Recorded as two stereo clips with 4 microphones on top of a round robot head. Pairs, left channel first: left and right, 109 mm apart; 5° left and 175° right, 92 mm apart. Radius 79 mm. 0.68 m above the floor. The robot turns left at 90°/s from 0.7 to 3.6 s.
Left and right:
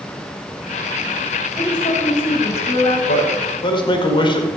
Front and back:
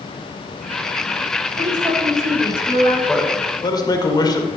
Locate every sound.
1.6 s a woman speaking: 160° left, 5.5 m; by 3.0 s 35° left, 5.5 m
3.1 s a man speaking: 95° left, 2.5 m; by 4.5 s 50° left, 2.5 m